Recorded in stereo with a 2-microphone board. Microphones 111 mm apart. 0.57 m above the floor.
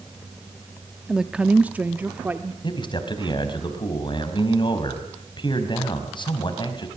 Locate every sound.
1.1 s a woman speaking: 5° right (ahead or behind), 0.8 m; by 2.5 s 15° right (ahead or behind), 1.5 m
2.6 s a man speaking: 45° left (ahead or behind), 4 m